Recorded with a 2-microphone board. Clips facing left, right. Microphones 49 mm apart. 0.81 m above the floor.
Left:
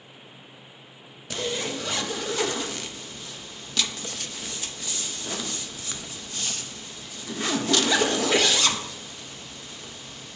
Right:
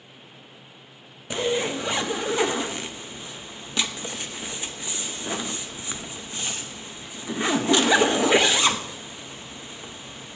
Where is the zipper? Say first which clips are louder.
Right 5 dB; 20° right (ahead or behind), 0.7 m.